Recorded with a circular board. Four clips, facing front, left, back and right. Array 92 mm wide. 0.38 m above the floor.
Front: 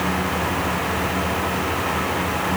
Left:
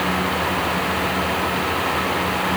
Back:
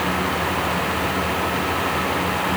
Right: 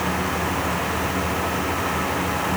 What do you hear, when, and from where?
Only background noise.